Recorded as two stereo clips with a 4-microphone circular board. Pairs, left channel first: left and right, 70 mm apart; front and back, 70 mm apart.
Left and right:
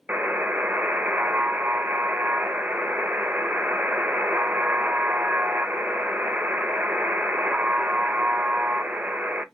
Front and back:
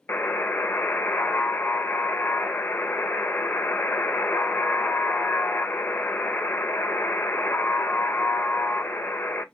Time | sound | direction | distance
0.1 | a buzzer | 40° right | 0.6 m